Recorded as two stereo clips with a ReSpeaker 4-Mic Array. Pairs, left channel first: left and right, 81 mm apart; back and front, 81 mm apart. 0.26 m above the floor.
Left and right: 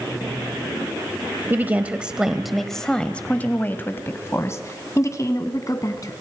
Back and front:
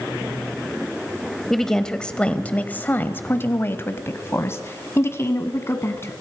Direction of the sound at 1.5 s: 100° right.